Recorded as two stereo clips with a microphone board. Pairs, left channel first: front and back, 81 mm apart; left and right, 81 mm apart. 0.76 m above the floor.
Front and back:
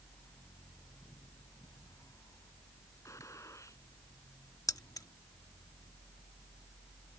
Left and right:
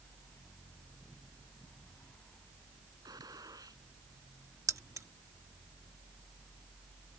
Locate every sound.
3.0 s a gunshot: 50° right
4.7 s keys jangling: 40° right